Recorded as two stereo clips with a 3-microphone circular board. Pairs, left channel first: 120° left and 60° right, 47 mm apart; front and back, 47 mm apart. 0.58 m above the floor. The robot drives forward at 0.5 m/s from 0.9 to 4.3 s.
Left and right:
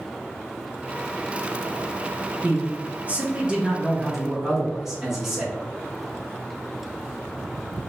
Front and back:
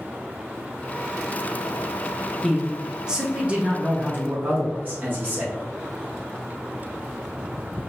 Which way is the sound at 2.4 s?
85° right.